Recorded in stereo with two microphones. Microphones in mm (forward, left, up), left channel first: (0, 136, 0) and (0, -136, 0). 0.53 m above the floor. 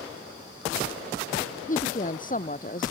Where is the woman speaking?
30° left (ahead or behind).